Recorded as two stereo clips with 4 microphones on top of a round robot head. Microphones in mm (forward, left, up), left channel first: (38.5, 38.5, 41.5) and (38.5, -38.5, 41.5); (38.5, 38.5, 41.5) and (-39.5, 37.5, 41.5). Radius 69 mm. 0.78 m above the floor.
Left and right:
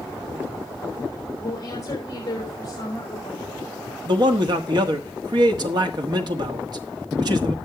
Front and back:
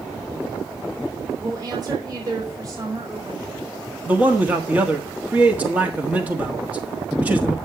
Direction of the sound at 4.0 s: 110° right.